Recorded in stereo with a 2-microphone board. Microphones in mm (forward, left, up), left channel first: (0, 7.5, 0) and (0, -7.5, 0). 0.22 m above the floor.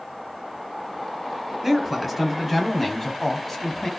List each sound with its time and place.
1.6 s a man speaking: 10° right (ahead or behind), 1.4 m; by 3.9 s 35° left (ahead or behind), 1.6 m